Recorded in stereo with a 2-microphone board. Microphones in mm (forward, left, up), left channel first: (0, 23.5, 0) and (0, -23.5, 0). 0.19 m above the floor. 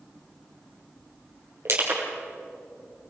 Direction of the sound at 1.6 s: 60° right (ahead or behind).